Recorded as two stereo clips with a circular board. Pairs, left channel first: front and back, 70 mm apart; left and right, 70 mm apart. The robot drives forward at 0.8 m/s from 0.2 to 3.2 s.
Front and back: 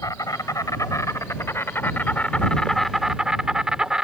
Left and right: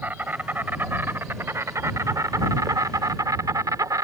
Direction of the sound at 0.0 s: 30° right.